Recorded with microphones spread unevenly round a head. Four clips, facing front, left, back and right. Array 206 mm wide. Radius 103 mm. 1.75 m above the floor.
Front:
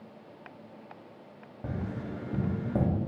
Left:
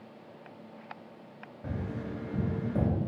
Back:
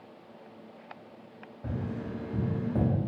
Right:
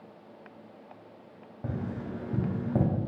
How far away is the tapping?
About 0.9 m.